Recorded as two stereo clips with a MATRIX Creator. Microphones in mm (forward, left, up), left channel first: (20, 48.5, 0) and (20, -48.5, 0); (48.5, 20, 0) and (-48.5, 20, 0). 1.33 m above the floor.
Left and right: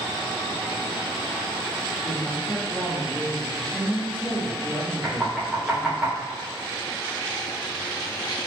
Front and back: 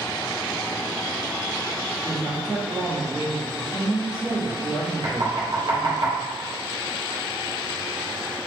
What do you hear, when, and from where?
2.0 s a woman speaking: 135° right, 2 m
5.0 s knocking: 170° right, 1.6 m